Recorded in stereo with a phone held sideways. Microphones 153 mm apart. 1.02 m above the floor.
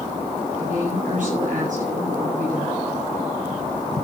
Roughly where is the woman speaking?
Right.